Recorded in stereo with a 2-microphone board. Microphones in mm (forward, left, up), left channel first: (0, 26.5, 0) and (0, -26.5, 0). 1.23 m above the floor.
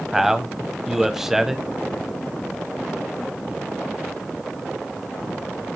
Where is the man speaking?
10° right (ahead or behind), 0.7 m.